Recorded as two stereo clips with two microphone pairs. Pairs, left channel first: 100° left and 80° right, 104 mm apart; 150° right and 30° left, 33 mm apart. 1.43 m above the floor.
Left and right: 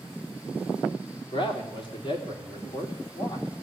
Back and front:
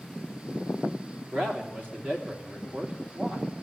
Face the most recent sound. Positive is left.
turn(degrees=60)